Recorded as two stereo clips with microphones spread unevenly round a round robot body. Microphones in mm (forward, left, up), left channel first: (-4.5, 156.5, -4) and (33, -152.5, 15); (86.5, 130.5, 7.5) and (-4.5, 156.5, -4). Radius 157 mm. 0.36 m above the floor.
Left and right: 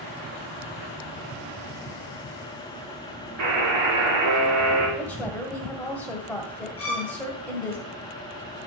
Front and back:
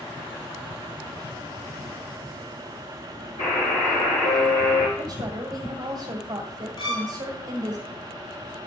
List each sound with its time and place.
3.4 s a buzzer: 40° right, 4 m
5.0 s a woman speaking: straight behind, 2.0 m
6.8 s a violin: 15° left, 5 m